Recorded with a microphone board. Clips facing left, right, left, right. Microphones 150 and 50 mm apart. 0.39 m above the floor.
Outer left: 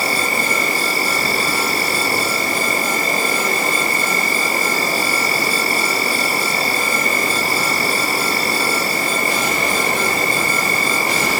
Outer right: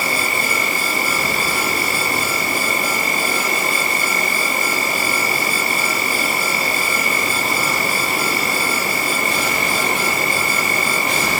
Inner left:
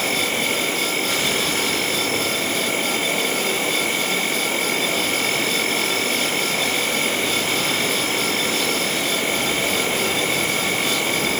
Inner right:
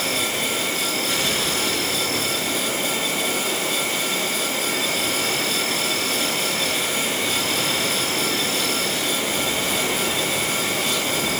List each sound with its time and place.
0.0 s an insect: 35° left (ahead or behind), 6 m